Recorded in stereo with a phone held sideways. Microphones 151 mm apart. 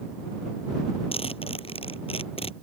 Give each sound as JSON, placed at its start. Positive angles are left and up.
{"t": 1.1, "sound": "a zipper", "side_deg": 45}